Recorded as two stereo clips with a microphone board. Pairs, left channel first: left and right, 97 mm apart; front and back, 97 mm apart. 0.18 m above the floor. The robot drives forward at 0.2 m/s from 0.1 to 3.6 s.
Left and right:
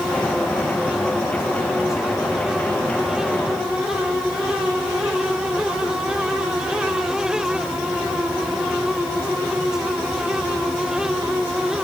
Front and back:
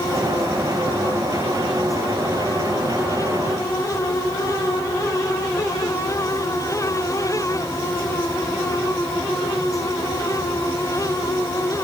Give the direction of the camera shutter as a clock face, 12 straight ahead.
No camera shutter in this recording.